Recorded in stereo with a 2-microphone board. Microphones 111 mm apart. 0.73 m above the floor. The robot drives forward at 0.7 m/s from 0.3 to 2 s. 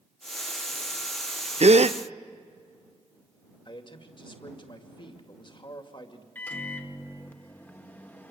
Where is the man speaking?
45° left (ahead or behind), 2.5 m.